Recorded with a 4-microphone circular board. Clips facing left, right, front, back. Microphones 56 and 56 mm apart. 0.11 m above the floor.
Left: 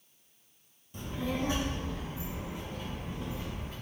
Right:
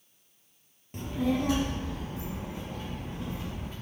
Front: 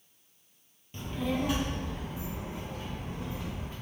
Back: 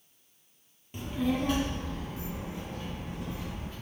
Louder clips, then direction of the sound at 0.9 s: Right 6 dB, back 2 dB; 110° right.